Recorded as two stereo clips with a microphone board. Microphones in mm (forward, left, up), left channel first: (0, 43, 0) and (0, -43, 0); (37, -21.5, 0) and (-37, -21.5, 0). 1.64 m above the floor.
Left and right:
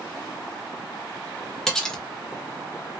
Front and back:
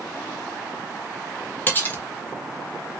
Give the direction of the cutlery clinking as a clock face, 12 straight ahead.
11 o'clock.